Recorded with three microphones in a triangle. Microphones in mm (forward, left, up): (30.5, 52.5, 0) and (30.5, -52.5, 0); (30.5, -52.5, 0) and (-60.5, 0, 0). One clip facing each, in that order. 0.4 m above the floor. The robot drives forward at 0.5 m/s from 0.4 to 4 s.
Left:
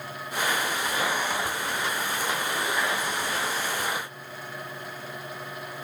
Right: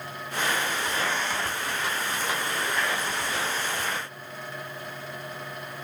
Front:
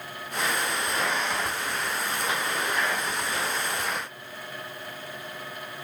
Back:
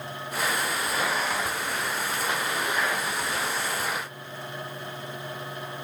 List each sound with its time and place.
Only background noise.